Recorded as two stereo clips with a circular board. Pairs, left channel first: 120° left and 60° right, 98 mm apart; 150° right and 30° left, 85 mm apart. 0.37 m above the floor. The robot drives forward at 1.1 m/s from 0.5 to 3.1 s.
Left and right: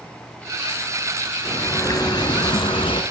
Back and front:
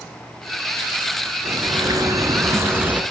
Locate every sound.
1.4 s a bird: 60° left, 2.5 m; by 3.0 s 100° left, 2.5 m